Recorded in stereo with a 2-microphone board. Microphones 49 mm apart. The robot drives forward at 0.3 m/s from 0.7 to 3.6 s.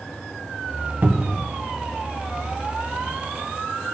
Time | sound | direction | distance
1.0 | a cupboard door | 45° right (ahead or behind) | 1.2 m